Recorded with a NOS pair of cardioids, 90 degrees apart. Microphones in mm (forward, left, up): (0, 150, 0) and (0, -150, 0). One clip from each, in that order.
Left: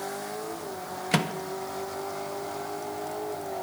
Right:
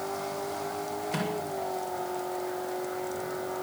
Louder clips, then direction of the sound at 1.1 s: Left 7 dB; 60° left.